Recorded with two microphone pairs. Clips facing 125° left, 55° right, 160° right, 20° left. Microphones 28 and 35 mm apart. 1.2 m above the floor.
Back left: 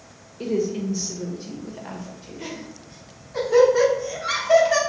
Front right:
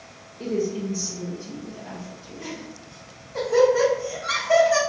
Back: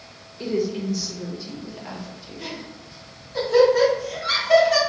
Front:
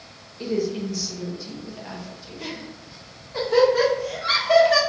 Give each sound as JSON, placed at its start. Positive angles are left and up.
{"t": 0.4, "sound": "a woman speaking", "azimuth_deg": 110, "distance_m": 0.7}
{"t": 2.4, "sound": "laughter", "azimuth_deg": 75, "distance_m": 1.2}